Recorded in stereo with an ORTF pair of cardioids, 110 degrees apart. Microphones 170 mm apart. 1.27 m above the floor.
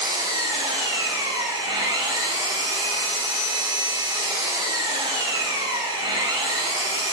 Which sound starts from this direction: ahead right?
An engine running, at 0.0 s.